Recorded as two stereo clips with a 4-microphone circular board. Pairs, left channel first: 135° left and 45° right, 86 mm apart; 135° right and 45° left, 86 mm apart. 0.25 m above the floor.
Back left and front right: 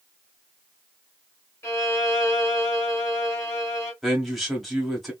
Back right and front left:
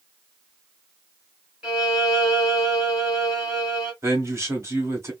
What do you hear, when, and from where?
1.6 s a violin: 120° left, 1.7 m
4.0 s a man speaking: 45° left, 1.5 m